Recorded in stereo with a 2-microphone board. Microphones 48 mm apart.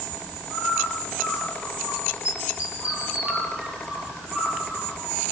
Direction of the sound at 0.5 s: 25° right (ahead or behind).